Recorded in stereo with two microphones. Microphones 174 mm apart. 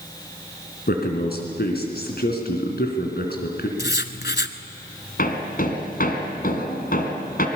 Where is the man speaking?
70° left (ahead or behind), 3.5 m.